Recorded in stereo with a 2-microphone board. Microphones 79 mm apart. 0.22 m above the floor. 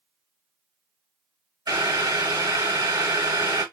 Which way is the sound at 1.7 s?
55° right (ahead or behind).